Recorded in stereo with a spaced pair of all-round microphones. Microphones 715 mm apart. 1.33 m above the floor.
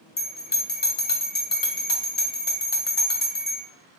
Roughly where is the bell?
Left.